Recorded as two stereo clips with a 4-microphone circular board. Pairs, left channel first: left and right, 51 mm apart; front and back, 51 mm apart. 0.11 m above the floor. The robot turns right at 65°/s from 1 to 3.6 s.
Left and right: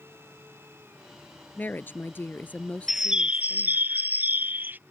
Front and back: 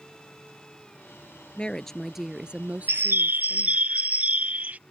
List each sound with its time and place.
1.6 s a woman speaking: 55° left; by 3.8 s 170° right
2.9 s a bird: 175° right; by 4.8 s 130° right